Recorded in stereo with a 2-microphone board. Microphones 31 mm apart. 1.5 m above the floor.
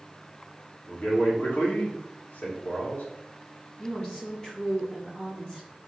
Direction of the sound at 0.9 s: 80° left.